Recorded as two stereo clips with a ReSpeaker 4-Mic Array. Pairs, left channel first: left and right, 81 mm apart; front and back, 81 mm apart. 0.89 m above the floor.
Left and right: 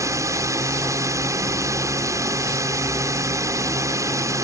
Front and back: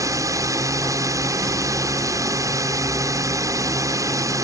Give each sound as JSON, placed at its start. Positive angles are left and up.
{"t": 0.0, "sound": "a drone", "azimuth_deg": -135}